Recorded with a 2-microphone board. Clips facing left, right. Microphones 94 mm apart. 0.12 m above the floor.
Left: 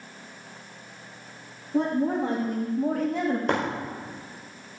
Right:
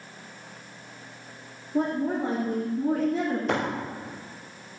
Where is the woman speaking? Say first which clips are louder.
Left 2 dB; 75° left (ahead or behind), 5.5 m.